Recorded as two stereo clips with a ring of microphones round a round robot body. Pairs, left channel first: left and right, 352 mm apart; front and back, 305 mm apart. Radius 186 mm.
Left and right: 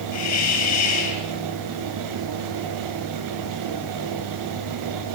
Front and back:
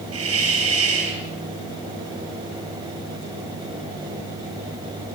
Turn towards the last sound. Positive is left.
turn(degrees=135)